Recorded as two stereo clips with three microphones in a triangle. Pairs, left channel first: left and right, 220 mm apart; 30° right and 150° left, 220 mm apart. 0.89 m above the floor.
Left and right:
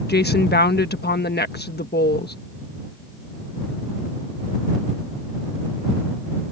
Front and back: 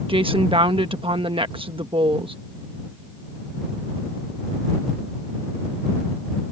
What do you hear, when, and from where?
0.1 s a woman speaking: 95° left